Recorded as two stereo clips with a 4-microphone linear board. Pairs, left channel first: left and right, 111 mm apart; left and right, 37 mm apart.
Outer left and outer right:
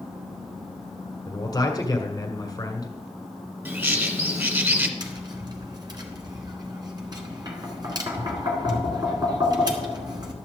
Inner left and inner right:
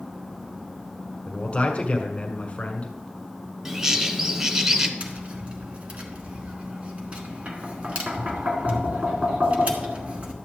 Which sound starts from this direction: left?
A man speaking, at 1.3 s.